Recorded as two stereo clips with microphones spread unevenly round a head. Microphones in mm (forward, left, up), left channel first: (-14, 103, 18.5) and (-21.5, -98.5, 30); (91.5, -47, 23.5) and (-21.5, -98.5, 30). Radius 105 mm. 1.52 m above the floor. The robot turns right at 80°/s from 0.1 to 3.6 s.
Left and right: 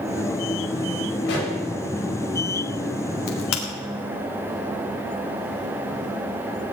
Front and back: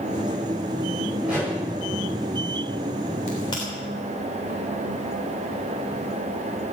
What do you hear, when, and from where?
1.2 s a pop: 115° left, 9.5 m; by 1.5 s 140° left, 9.5 m
3.3 s a crack: 75° left, 3 m; by 3.6 s 100° left, 3 m